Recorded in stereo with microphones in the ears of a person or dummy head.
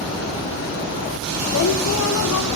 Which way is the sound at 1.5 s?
85° left.